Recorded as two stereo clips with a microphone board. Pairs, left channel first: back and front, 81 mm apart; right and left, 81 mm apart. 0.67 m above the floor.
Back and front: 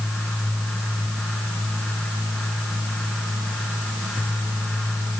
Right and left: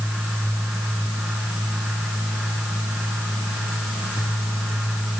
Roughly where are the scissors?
I don't hear scissors.